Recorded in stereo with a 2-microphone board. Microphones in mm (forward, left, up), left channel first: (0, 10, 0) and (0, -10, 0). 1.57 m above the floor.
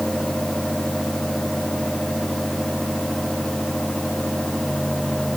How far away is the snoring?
I don't hear snoring.